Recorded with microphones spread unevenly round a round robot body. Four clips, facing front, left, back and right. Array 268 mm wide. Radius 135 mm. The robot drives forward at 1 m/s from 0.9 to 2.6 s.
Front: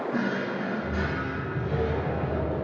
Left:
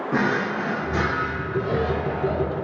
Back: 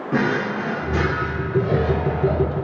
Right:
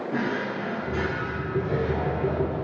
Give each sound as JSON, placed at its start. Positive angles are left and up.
{"t": 0.1, "sound": "a drawer", "azimuth_deg": 155, "distance_m": 1.1}